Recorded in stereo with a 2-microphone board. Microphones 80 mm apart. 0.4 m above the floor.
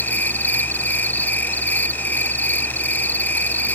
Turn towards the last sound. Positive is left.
turn(degrees=25)  # may be behind; listen again after turning